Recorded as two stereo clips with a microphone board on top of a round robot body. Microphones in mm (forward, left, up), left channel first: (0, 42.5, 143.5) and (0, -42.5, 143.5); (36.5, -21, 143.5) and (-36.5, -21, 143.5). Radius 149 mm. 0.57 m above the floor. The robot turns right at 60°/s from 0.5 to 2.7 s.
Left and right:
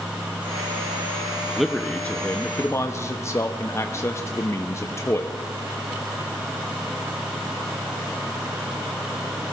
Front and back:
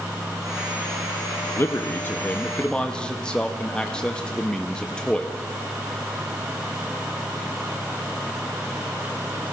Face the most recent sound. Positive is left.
turn(degrees=70)